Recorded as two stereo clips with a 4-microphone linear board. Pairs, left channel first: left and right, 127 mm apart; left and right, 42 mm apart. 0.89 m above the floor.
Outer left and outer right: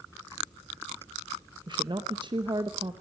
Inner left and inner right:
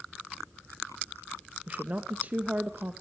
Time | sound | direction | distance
1.7 | a woman speaking | 40° right (ahead or behind) | 0.9 m